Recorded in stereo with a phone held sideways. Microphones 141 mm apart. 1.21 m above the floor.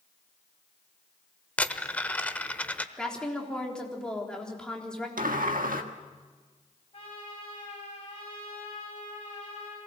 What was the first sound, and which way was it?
A dropped coin, 10° left (ahead or behind).